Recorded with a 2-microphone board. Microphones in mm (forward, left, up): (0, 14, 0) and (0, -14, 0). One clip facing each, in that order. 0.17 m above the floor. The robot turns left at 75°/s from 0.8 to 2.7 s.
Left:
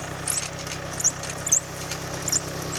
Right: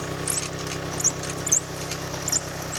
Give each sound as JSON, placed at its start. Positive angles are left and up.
{"t": 0.0, "sound": "an engine running", "azimuth_deg": -65}